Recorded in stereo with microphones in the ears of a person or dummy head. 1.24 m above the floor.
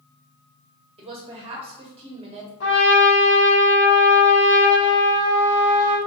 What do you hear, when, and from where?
1.0 s a woman speaking: 25° right (ahead or behind), 0.7 m
2.6 s a trumpet: 70° left (ahead or behind), 1.8 m